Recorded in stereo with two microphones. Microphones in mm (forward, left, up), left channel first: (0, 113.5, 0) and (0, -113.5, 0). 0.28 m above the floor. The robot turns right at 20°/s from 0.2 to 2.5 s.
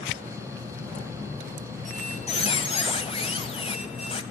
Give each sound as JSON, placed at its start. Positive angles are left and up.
{"t": 1.9, "sound": "a squeak", "side_deg": 35, "distance_m": 1.3}